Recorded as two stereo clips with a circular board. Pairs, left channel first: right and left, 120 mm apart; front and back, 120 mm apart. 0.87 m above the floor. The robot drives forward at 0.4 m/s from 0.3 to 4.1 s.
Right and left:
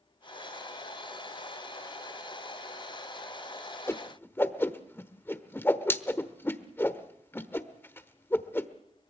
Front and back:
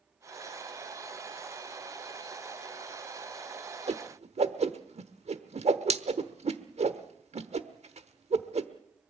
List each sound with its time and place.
3.9 s a whoosh: 160° right, 1.0 m